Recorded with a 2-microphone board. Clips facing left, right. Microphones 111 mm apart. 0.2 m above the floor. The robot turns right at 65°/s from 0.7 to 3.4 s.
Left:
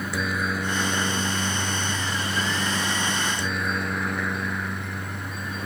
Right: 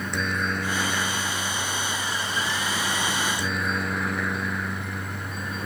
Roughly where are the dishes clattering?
I don't hear dishes clattering.